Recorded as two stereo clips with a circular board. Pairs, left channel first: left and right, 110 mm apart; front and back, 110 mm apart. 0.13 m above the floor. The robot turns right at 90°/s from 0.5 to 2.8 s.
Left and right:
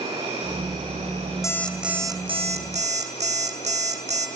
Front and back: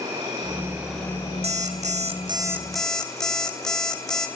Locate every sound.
0.0 s an insect: 130° right, 9.5 m; by 4.4 s 80° left, 9.5 m
1.4 s an alarm clock: 150° left, 2.5 m; by 4.3 s 85° right, 2.5 m